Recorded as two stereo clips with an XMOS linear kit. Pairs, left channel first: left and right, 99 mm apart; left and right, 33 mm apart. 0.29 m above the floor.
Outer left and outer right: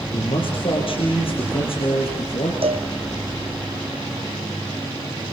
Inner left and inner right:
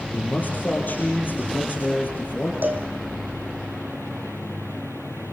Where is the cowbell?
75° right (ahead or behind), 3.5 m.